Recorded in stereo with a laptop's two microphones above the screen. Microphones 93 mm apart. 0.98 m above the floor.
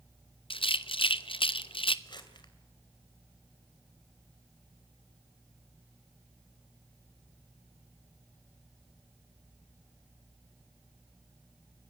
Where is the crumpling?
50° left (ahead or behind), 2.5 m.